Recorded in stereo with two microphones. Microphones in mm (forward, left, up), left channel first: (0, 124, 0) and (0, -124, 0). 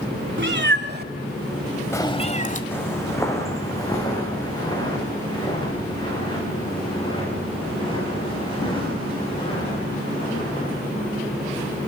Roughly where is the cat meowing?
Right.